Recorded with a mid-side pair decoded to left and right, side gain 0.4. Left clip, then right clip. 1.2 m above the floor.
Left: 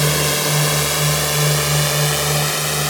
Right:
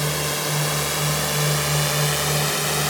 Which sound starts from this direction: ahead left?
A drone, at 0.0 s.